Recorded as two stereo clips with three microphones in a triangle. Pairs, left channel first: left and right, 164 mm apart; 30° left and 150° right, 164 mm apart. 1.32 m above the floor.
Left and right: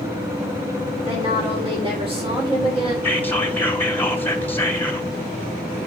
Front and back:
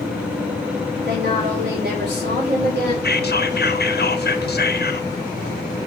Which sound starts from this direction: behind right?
A woman speaking, at 1.0 s.